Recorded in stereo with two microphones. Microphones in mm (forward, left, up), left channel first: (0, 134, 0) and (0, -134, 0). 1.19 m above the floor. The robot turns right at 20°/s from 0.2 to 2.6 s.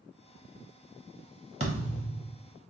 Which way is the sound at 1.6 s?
25° right (ahead or behind).